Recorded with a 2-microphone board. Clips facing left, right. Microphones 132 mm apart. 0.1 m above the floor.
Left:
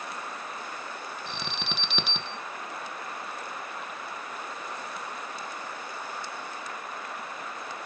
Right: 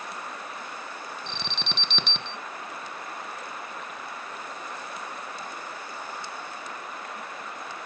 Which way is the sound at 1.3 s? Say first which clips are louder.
Left 1 dB; 5° left (ahead or behind).